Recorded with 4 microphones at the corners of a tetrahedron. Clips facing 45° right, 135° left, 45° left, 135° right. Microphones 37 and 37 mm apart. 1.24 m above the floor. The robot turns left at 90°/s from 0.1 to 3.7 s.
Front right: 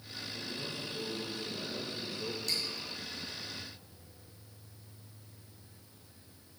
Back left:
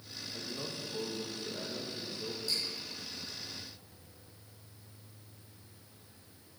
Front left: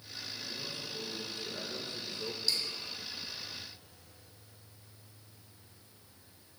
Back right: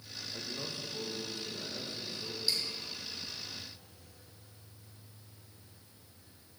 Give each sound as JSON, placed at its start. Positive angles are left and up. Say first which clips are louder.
{"t": 0.3, "sound": "a man speaking", "louder": "even, back right 2 dB", "azimuth_deg": -165, "distance_m": 1.7}
{"t": 2.5, "sound": "dripping", "louder": "even, even", "azimuth_deg": -60, "distance_m": 2.5}